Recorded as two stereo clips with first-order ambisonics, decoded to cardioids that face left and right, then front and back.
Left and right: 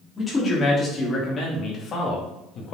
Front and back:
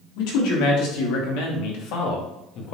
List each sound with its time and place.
0.2 s a man speaking: 15° left, 3 m; by 2.8 s 40° left, 1.9 m